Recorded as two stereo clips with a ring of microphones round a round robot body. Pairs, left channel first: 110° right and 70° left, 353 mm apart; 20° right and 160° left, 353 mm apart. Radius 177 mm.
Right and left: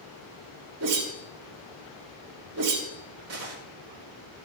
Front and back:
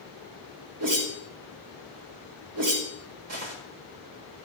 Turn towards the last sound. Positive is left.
turn(degrees=115)